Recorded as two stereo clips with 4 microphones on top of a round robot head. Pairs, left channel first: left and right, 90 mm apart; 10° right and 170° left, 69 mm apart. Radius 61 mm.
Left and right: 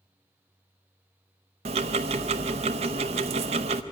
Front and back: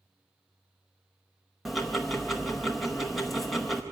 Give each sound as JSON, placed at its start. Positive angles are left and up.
{"t": 1.6, "sound": "ticking", "azimuth_deg": -100, "distance_m": 0.6}